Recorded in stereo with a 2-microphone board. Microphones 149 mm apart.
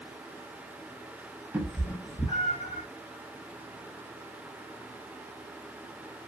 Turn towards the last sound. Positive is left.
turn(degrees=55)  # may be behind; listen again after turning